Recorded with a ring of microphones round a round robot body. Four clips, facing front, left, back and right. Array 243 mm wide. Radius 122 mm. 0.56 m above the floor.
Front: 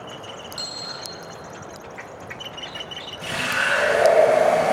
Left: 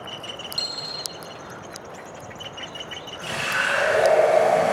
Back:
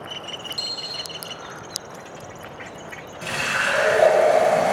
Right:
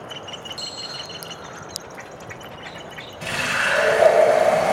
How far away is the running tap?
About 1.5 m.